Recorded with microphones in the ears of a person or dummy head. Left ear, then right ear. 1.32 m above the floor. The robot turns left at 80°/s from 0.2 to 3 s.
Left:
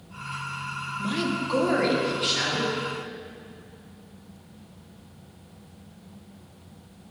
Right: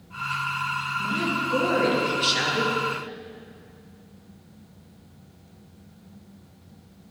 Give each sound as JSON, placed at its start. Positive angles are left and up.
{"t": 1.0, "sound": "a woman speaking", "azimuth_deg": 70, "distance_m": 1.2}